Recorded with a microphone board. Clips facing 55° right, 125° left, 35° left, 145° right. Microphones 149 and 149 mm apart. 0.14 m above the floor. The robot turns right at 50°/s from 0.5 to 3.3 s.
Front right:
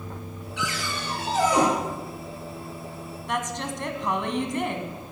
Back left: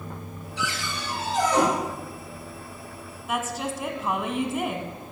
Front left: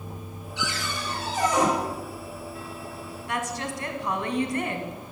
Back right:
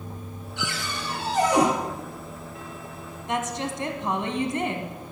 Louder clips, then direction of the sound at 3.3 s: Back left 1 dB, back right 3 dB; 160° right.